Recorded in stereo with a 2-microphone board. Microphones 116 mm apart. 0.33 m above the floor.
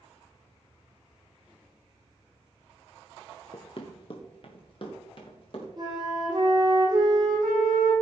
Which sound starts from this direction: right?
A flute, at 5.8 s.